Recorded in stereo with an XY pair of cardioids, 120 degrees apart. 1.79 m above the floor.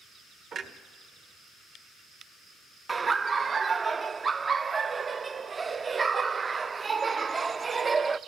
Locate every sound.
0.5 s a clunk: 55° right, 1.7 m
2.9 s laughter: 30° right, 0.6 m